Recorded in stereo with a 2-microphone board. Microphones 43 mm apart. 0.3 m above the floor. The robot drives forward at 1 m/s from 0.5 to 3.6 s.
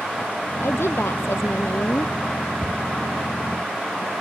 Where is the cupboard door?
25° left (ahead or behind); by 2.8 s 30° left (ahead or behind).